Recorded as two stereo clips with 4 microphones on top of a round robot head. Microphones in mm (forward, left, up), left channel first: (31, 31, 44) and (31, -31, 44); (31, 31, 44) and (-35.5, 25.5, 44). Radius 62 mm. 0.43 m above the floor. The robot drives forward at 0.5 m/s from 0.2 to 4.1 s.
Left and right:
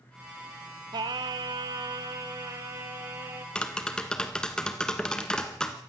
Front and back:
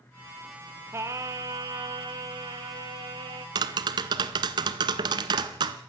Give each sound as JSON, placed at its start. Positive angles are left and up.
{"t": 0.9, "sound": "singing", "azimuth_deg": -115, "distance_m": 1.1}
{"t": 3.5, "sound": "tapping", "azimuth_deg": 170, "distance_m": 1.1}